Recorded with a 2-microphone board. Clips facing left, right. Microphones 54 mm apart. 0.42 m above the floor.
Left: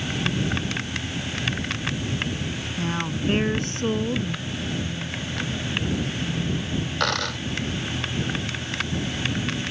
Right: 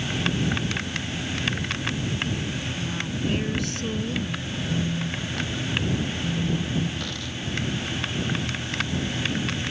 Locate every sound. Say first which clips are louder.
2.8 s a woman speaking: left 6 dB; 50° left (ahead or behind); by 4.5 s 30° left (ahead or behind)
4.7 s a phone buzzing: right 5 dB; 50° right (ahead or behind)
7.0 s a dropped coin: left 8 dB; 85° left